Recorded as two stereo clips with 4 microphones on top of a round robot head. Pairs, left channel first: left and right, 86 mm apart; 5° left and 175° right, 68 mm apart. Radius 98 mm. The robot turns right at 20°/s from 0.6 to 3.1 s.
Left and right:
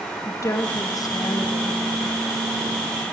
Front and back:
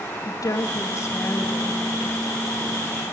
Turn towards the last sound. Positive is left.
turn(degrees=90)